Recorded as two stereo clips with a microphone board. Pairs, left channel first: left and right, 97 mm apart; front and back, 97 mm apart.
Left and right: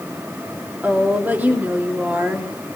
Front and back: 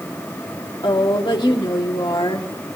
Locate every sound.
0.8 s a woman speaking: 20° right, 2 m